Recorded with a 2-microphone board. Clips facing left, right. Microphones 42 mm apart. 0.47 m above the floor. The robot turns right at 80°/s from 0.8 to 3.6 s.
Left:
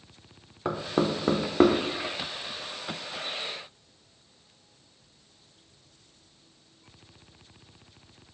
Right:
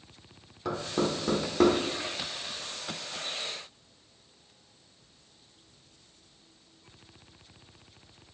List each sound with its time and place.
0.7 s knocking: 30° left (ahead or behind), 0.6 m; by 1.8 s 20° left (ahead or behind), 0.6 m